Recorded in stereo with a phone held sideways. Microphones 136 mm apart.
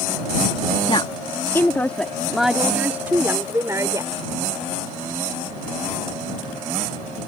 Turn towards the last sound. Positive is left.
turn(degrees=-25)  # may be behind; listen again after turning